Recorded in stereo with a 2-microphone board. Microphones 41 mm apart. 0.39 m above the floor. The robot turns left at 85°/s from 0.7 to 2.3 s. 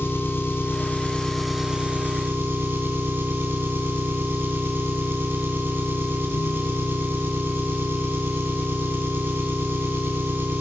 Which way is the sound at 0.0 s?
65° left.